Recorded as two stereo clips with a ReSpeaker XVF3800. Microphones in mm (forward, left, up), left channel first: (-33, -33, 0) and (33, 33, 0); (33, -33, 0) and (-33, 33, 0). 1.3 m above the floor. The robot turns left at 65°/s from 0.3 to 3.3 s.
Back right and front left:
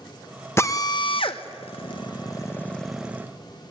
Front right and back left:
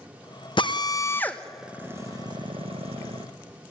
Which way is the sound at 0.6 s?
75° right.